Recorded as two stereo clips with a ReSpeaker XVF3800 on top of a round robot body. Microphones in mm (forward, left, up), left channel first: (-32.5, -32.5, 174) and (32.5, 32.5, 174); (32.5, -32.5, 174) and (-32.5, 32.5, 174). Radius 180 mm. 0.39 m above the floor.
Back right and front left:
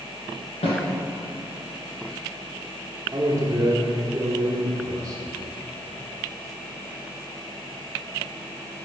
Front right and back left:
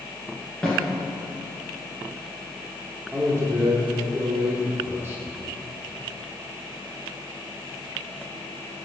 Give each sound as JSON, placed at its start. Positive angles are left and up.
{"t": 0.6, "sound": "a snare drum", "azimuth_deg": -130, "distance_m": 1.8}
{"t": 3.1, "sound": "a man speaking", "azimuth_deg": 80, "distance_m": 1.1}